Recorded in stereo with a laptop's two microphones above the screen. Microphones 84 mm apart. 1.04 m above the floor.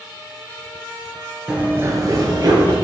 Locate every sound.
1.5 s running footsteps: 10° right (ahead or behind), 1.1 m; by 2.7 s 55° right (ahead or behind), 2 m